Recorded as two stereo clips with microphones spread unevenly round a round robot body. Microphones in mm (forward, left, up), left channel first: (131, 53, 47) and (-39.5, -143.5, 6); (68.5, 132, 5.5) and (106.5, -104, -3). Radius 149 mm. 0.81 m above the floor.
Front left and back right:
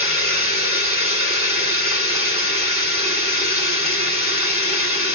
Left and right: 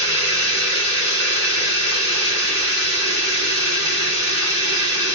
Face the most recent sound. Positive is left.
turn(degrees=-60)